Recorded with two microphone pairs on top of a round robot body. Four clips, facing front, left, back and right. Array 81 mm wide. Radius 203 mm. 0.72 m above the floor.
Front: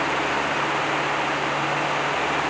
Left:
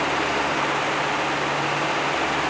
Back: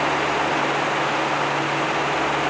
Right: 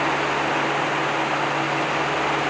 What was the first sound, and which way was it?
Only background noise.